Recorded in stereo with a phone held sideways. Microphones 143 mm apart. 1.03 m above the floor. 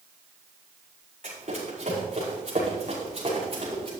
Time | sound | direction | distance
1.2 | running footsteps | 60° right (ahead or behind) | 5.5 m